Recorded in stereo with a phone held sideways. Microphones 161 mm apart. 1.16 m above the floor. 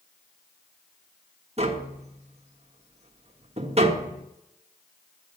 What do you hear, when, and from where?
1.6 s tapping: 40° right (ahead or behind), 1.4 m